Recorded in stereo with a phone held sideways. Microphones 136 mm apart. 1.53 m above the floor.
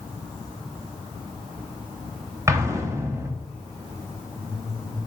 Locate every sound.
2.5 s an explosion: 20° right (ahead or behind), 1.0 m